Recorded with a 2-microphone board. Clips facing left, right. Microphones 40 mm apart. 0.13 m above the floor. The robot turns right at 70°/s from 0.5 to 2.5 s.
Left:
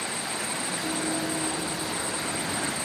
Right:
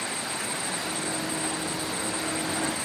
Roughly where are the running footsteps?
Left.